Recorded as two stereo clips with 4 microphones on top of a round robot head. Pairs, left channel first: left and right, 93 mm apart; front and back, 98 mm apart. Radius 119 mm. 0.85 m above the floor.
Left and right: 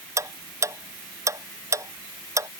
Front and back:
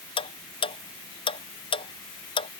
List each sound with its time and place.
0.2 s ticking: 35° right